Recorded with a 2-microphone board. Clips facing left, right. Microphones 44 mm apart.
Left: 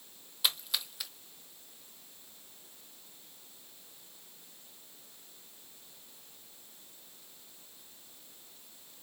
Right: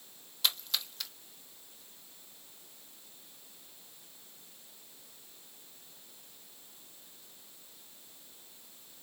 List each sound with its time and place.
0.4 s a splash: 10° left (ahead or behind), 0.8 m